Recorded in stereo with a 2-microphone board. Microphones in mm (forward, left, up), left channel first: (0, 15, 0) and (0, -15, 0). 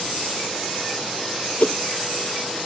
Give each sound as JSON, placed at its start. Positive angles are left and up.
{"t": 1.6, "sound": "a whoosh", "side_deg": 65}